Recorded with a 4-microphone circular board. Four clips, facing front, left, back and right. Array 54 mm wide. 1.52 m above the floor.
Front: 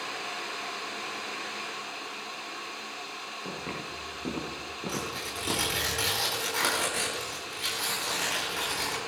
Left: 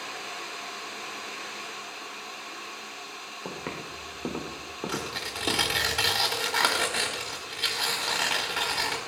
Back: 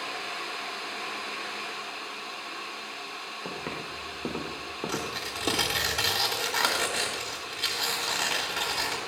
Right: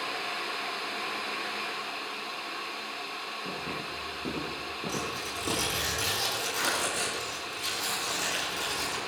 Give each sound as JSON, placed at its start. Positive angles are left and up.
{"t": 3.5, "sound": "footsteps", "azimuth_deg": 120, "distance_m": 5.5}
{"t": 4.9, "sound": "tearing paper", "azimuth_deg": 110, "distance_m": 4.0}